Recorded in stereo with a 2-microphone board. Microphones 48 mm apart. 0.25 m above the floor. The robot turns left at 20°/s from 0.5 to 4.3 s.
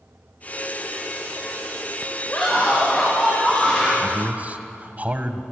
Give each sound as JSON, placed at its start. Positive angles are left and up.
{"t": 2.3, "sound": "a scream", "azimuth_deg": 40, "distance_m": 5.5}
{"t": 4.0, "sound": "a man speaking", "side_deg": -35, "distance_m": 1.2}